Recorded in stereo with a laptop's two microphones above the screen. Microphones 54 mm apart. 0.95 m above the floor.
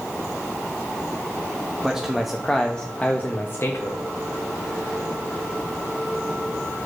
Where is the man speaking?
10° right (ahead or behind), 1.7 m; by 4.0 s 55° left (ahead or behind), 1.5 m.